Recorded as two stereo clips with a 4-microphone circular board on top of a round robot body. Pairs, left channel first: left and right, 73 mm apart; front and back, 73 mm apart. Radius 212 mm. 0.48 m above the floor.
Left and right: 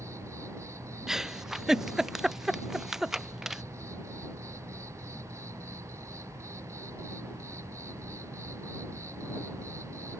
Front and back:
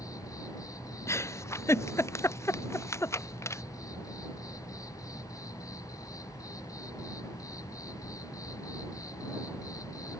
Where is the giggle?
10° right.